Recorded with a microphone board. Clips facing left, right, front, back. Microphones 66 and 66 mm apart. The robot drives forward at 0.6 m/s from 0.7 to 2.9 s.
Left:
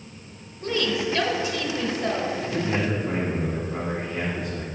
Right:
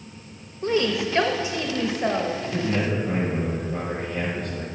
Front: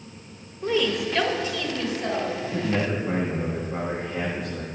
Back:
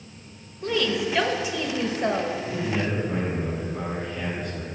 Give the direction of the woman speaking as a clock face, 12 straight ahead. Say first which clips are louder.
Right 2 dB, front 1 dB; 2 o'clock.